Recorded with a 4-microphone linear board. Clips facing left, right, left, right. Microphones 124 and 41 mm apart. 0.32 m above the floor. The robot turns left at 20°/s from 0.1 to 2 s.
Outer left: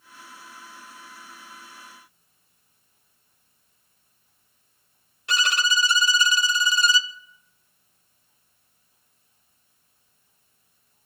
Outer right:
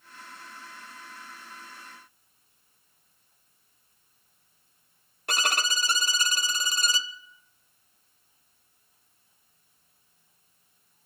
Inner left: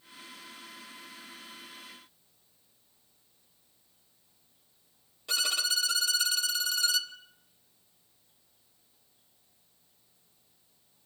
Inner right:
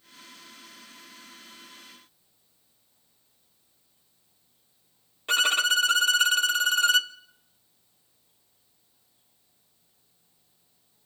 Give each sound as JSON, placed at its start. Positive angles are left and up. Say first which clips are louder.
{"t": 5.3, "sound": "a violin", "louder": "outer left 5 dB, inner right 9 dB", "side_deg": -50, "distance_m": 0.6}